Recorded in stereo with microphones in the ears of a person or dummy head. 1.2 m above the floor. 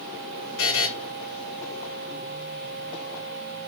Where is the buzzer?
60° left (ahead or behind), 2.5 m.